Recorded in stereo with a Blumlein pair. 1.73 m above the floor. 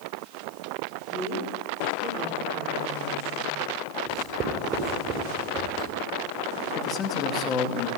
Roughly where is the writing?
Ahead right.